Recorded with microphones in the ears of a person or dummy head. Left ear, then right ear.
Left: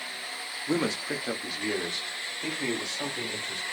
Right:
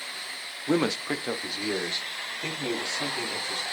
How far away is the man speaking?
About 0.7 m.